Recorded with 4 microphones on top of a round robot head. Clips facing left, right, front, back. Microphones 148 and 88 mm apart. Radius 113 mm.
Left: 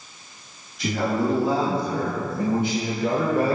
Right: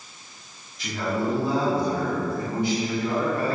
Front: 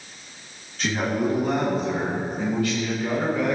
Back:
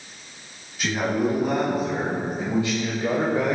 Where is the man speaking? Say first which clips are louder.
Left 3 dB, back 1 dB; 100° left, 4.5 m; by 3.5 s 135° left, 1.9 m.